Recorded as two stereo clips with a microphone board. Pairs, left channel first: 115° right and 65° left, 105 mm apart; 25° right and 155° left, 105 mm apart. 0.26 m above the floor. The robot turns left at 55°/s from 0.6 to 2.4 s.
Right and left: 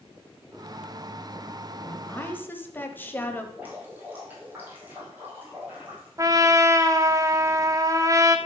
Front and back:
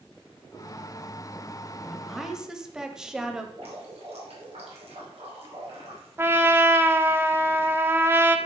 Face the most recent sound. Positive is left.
turn(degrees=100)